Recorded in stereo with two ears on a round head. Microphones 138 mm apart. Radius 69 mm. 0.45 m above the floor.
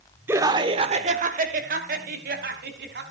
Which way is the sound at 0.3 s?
15° right (ahead or behind).